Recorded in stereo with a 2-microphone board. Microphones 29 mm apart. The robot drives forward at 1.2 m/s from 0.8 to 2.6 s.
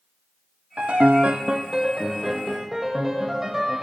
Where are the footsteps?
I don't hear footsteps.